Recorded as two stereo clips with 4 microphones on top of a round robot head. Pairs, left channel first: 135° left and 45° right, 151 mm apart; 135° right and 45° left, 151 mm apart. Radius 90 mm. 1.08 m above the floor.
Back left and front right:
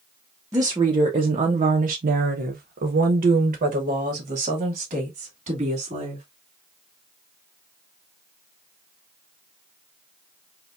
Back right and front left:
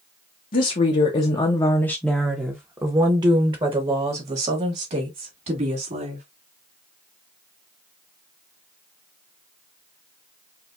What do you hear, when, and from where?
0.5 s a woman speaking: 110° right, 0.9 m; by 6.2 s 5° left, 2.5 m